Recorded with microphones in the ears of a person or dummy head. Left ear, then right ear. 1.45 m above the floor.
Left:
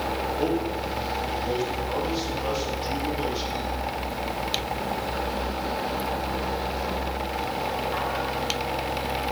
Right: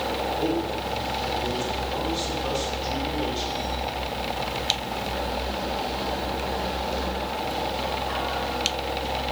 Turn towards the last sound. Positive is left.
turn(degrees=65)  # may be behind; listen again after turning